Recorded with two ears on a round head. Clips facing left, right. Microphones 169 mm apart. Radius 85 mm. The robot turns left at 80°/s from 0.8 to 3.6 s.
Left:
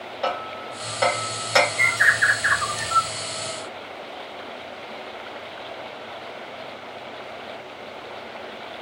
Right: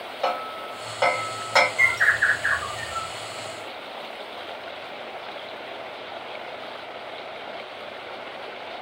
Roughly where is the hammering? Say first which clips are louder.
Even; centre.